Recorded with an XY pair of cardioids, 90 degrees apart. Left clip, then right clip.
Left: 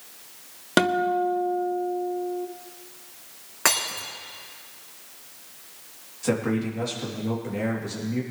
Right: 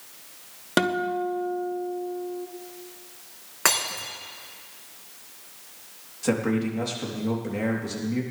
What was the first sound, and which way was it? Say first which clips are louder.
A guitar: left 3 dB; 15° left.